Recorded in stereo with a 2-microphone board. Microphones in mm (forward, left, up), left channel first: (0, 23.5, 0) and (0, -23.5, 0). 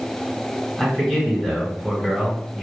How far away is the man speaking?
About 1.8 m.